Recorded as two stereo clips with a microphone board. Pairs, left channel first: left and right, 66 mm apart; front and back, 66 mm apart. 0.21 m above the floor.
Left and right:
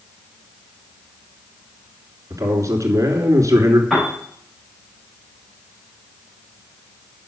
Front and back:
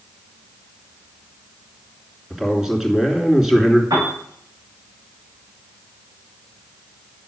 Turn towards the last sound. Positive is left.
turn(degrees=180)